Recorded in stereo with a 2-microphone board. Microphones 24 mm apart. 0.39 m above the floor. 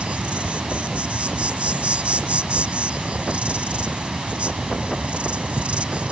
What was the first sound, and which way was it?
An insect, 60° right (ahead or behind).